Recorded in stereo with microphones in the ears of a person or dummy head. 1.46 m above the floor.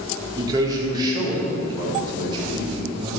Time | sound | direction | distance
0.4 | a man speaking | 20° right (ahead or behind) | 4 m